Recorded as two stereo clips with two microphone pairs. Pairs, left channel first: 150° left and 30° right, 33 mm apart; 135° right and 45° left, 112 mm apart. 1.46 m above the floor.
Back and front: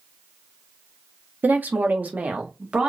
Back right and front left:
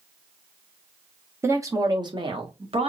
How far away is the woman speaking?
About 1.3 m.